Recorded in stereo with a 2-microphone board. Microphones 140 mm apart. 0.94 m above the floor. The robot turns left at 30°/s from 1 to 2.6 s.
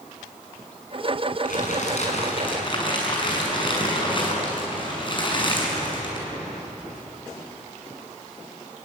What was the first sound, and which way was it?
Crumpling, 70° left.